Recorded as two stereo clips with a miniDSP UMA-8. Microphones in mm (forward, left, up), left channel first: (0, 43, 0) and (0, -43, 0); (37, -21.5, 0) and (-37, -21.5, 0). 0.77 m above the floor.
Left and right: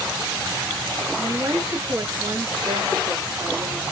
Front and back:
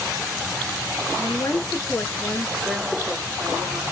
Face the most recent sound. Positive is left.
turn(degrees=-130)